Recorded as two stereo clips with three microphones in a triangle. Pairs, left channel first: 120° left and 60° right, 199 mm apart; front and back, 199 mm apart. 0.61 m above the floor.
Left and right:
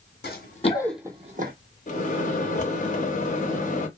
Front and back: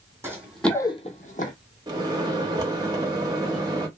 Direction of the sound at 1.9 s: 120° left.